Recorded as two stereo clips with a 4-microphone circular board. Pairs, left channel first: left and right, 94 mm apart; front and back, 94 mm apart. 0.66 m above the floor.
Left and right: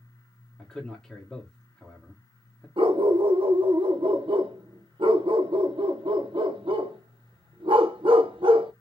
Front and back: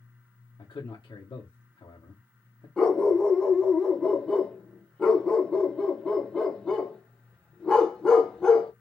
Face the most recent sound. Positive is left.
turn(degrees=-80)